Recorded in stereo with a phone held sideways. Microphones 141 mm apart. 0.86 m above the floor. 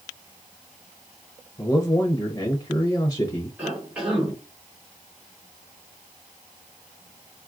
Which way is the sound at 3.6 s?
10° right (ahead or behind).